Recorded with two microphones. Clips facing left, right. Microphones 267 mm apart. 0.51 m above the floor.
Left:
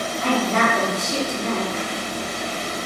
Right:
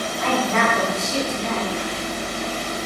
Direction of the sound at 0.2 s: 35° left (ahead or behind).